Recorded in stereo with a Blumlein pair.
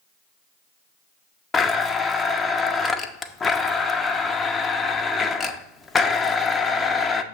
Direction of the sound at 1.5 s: 15° left.